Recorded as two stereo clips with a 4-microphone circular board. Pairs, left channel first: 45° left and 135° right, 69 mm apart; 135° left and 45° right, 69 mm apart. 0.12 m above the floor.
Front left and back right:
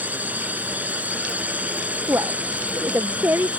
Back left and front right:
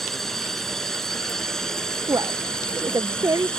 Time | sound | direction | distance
0.0 | a drone | 145° right | ?
2.1 | a woman speaking | 80° right | ?